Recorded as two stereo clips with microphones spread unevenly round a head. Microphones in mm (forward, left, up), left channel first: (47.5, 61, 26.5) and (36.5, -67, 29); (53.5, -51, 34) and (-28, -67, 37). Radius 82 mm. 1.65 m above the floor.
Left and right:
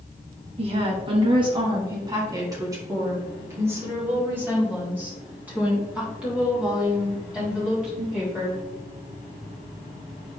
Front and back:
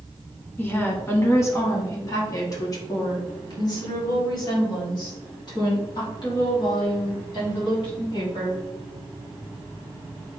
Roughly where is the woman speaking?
Ahead right.